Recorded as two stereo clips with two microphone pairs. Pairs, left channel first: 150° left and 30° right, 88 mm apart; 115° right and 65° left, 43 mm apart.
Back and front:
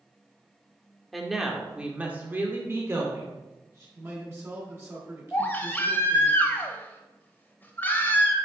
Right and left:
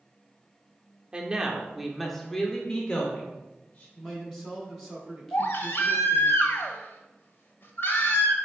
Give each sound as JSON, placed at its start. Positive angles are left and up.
{"t": 1.1, "sound": "a woman speaking", "azimuth_deg": 60, "distance_m": 1.0}
{"t": 4.0, "sound": "a man speaking", "azimuth_deg": -30, "distance_m": 1.4}
{"t": 5.3, "sound": "a baby crying", "azimuth_deg": -145, "distance_m": 0.9}